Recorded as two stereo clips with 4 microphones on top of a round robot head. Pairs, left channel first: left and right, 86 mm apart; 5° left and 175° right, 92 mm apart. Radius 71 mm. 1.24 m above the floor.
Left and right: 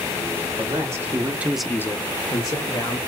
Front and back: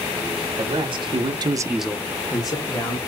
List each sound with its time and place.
0.6 s a man speaking: 145° right, 1.8 m; by 3.0 s 45° left, 1.8 m